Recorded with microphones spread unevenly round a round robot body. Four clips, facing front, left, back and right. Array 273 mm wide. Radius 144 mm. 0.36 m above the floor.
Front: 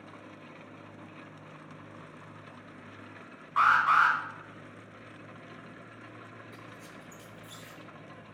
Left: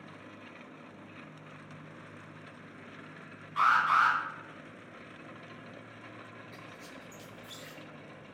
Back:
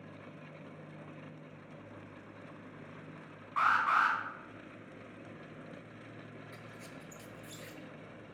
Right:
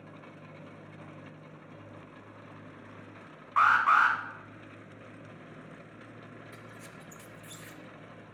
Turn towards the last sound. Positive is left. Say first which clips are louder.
# even, front 2 dB
turn(degrees=-130)